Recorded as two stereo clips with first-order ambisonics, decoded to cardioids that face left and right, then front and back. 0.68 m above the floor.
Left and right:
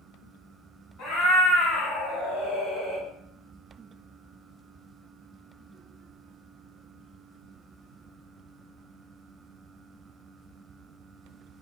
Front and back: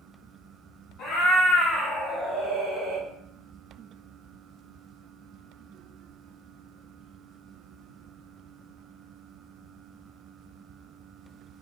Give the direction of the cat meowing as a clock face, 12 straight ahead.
10 o'clock.